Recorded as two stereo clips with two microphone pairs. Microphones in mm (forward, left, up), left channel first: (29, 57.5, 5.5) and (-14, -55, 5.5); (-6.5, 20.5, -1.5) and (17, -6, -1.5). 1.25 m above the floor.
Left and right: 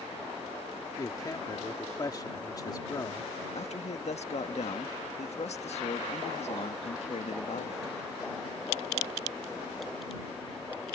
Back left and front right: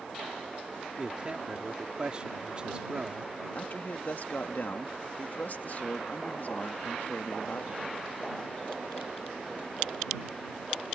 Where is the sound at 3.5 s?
95° left.